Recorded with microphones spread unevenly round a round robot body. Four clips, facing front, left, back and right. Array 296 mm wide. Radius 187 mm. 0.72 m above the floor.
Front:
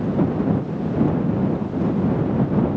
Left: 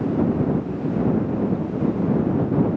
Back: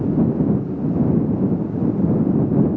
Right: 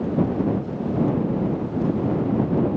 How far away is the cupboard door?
I don't hear a cupboard door.